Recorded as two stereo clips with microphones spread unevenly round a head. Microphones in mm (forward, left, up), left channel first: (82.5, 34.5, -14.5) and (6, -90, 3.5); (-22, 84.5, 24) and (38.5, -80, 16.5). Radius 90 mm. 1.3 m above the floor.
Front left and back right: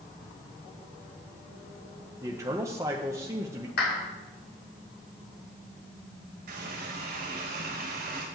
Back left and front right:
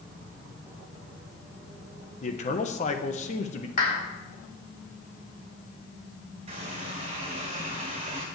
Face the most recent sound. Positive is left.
turn(degrees=-130)